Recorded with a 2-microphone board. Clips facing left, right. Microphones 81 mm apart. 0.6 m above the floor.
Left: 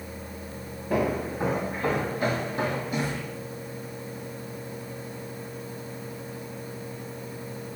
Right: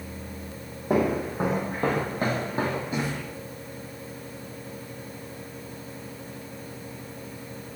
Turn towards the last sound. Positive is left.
turn(degrees=-20)  # may be behind; listen again after turning